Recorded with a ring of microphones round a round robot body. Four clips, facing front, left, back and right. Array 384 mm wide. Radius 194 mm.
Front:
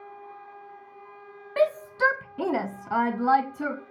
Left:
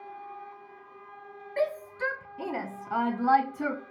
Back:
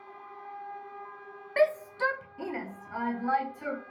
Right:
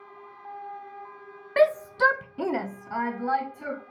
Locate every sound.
1.6 s a shout: 85° right, 0.8 m; by 3.8 s 35° left, 1.0 m